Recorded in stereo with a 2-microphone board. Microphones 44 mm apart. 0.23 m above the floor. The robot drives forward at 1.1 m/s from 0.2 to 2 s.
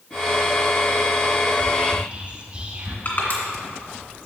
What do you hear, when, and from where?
1.5 s whispering: 30° right (ahead or behind), 1.6 m
3.0 s crushing: 50° left (ahead or behind), 2 m